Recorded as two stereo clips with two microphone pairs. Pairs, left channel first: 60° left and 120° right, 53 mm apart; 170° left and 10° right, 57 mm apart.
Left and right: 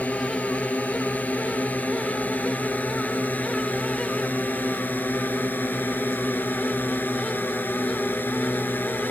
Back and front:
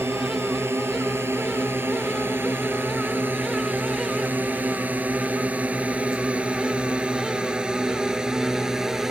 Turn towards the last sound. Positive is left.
turn(degrees=70)